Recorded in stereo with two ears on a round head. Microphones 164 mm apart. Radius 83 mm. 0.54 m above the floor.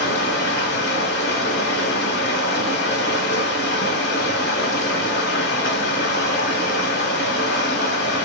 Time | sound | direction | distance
0.0 | running water | 65° left (ahead or behind) | 1.1 m